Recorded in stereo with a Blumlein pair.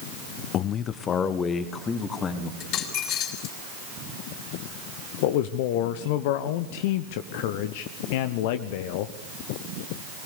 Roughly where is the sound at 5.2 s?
Ahead left.